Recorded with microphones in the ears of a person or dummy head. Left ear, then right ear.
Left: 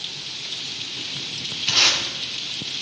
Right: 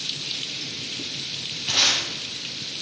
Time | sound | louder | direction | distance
1.7 | tape being pulled | left 2 dB | 20° left (ahead or behind) | 4.5 m